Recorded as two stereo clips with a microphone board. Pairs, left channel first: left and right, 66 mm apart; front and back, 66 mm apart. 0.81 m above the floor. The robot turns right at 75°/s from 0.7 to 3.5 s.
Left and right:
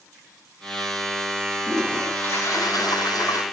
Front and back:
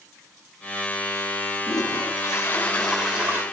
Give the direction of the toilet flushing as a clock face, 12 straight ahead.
12 o'clock.